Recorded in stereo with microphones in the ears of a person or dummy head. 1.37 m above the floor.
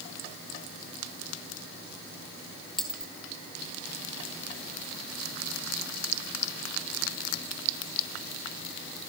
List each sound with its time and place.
2.8 s a dropped coin: 5° left (ahead or behind), 3 m